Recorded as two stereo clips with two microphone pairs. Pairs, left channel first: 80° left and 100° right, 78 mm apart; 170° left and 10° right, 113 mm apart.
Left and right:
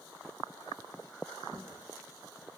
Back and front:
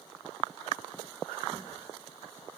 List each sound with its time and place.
1.5 s footsteps: 55° right, 3.5 m